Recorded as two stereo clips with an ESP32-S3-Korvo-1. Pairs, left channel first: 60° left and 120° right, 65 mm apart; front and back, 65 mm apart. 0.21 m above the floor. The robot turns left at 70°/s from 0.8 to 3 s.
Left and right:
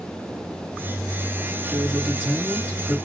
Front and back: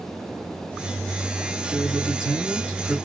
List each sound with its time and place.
1.7 s a man speaking: 10° left, 3.5 m; by 3.0 s 80° right, 3.5 m